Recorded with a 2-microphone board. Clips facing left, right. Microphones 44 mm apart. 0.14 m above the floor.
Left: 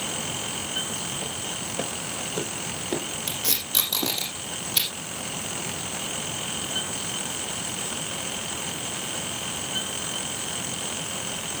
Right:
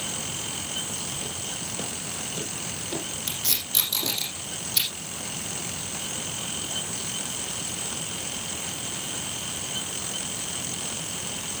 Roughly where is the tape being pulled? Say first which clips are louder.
Left 2 dB; left.